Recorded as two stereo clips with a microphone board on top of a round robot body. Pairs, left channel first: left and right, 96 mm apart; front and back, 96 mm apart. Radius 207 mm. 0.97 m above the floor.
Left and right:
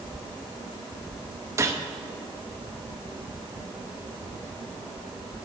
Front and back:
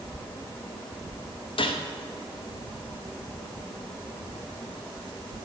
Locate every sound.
1.6 s a gunshot: 30° right, 0.9 m